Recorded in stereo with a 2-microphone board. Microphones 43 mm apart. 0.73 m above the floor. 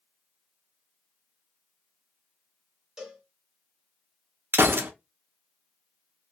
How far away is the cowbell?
About 1.5 m.